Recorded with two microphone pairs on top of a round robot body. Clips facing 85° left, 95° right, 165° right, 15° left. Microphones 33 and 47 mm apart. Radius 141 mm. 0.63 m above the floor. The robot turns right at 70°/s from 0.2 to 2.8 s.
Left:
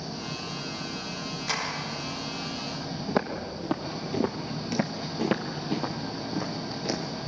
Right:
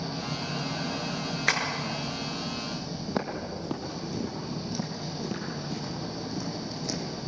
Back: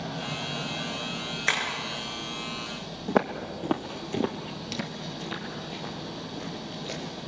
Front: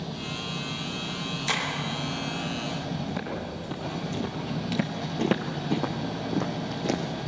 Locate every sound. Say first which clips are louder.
0.0 s an engine running: right 2 dB, back 1 dB; 170° right, 4 m; by 7.3 s 15° left, 4 m
1.5 s tapping: right 5 dB, back 3 dB; 120° right, 5 m; by 1.6 s 110° right, 5 m
3.1 s footsteps: left 3 dB, back 6 dB; 160° left, 2 m; by 7.0 s 15° left, 2.5 m